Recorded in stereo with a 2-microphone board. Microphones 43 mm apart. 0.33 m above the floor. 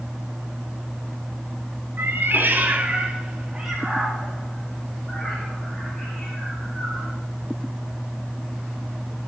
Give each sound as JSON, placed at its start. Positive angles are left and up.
{"t": 2.0, "sound": "a cat meowing", "side_deg": -65, "distance_m": 1.0}